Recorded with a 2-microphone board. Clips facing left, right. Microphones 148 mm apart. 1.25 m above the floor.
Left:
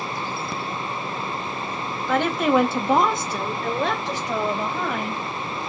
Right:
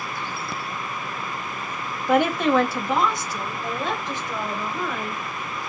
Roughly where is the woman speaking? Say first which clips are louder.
Right 1 dB; centre.